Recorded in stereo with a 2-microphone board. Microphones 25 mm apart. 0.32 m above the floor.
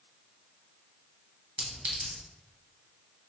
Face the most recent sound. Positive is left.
turn(degrees=-60)  # may be behind; listen again after turning